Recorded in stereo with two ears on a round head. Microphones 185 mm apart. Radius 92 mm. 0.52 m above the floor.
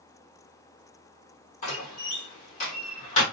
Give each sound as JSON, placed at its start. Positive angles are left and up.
{"t": 1.6, "sound": "a door slam", "side_deg": 35, "distance_m": 1.2}